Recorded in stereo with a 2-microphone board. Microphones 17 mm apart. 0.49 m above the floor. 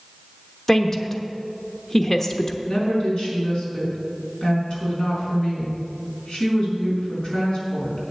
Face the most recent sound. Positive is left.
turn(degrees=60)  # may be behind; listen again after turning